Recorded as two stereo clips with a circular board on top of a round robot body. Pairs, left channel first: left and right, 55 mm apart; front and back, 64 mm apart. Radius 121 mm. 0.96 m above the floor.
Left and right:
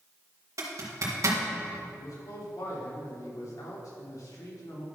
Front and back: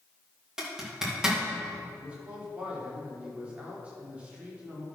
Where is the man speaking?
110° left, 2.5 m.